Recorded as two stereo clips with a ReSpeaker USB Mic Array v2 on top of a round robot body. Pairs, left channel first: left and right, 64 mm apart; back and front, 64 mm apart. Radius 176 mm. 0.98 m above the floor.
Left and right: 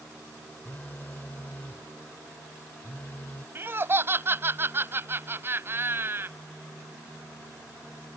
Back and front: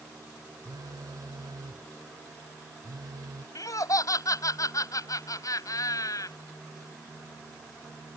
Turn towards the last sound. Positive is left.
turn(degrees=-145)